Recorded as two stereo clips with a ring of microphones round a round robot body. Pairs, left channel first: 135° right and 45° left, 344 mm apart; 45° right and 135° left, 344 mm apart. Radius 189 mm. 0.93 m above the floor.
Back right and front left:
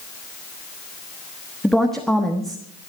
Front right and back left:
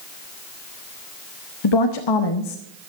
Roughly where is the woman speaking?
Ahead right.